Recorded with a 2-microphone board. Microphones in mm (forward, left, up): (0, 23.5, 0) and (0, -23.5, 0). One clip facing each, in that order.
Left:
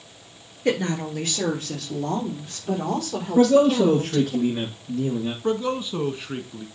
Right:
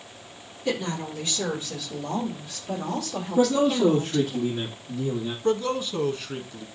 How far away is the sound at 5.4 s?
About 1.1 m.